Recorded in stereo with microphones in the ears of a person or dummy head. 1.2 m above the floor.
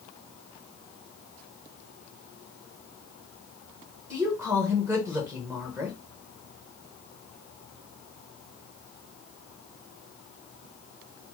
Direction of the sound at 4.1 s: 10° right (ahead or behind).